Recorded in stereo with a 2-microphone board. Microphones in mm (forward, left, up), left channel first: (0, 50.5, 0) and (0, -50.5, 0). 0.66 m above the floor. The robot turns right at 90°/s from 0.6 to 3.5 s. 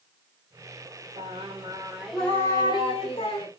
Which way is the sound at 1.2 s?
85° right.